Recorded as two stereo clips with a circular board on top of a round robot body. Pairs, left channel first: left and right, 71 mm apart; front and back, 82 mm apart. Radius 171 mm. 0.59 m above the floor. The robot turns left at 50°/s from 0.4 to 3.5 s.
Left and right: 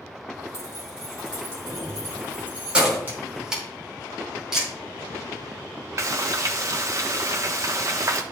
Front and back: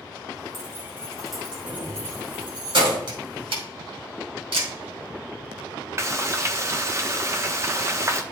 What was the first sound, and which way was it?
Keys jangling, 55° right.